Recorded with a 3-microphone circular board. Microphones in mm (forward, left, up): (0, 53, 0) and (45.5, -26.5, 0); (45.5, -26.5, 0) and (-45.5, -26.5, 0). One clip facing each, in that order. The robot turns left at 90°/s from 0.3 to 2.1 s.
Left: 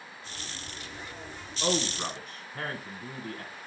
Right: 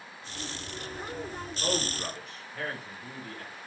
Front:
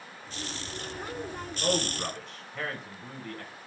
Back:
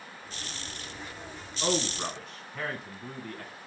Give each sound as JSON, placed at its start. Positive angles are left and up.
{"t": 1.6, "sound": "a man speaking", "azimuth_deg": 140, "distance_m": 1.6}